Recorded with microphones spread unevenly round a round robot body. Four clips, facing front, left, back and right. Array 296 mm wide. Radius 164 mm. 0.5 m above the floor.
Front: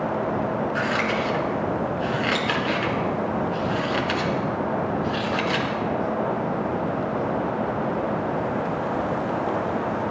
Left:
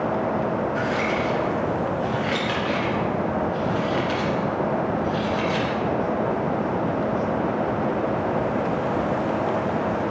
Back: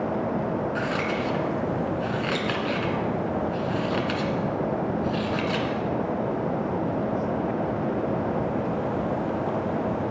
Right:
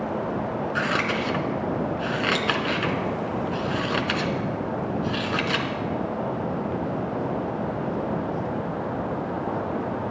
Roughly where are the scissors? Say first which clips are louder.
Left 2 dB, front 3 dB; right.